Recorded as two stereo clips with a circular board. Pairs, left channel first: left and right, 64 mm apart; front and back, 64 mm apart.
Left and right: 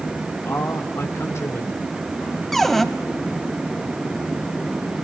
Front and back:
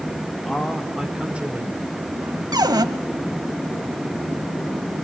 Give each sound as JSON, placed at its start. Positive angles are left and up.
{"t": 0.5, "sound": "a man speaking", "azimuth_deg": 80, "distance_m": 1.7}
{"t": 2.5, "sound": "a cupboard door", "azimuth_deg": 175, "distance_m": 1.2}